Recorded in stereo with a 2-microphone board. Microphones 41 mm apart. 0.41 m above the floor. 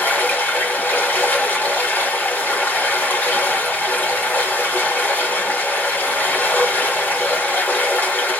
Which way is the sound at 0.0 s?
45° left (ahead or behind).